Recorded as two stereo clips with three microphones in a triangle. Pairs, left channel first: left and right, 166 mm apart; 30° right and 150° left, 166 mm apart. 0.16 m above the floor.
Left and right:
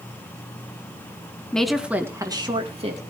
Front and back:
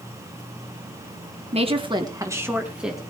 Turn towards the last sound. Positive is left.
turn(degrees=-120)